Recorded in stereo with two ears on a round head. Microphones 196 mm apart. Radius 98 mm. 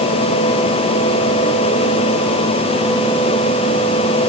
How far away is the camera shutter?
No camera shutter in this recording.